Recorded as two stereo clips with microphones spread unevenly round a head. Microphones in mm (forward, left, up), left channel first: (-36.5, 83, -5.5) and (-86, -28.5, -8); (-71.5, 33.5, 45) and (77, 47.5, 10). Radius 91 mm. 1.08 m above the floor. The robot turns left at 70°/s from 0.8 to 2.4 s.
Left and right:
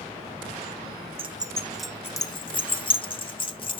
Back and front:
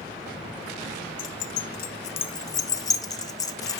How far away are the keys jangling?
About 0.7 m.